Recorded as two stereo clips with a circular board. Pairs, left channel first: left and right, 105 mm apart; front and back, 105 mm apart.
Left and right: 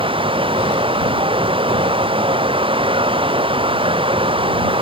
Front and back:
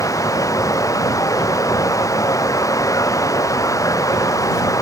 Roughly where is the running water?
Ahead right.